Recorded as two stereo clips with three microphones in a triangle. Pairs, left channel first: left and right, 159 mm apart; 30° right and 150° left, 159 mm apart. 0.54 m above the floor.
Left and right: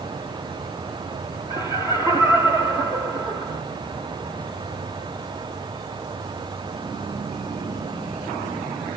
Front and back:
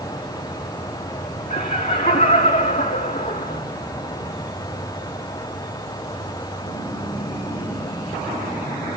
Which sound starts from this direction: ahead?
Laughter, at 1.5 s.